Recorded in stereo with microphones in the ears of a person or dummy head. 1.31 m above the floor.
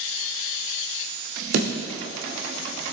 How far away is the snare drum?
About 2 m.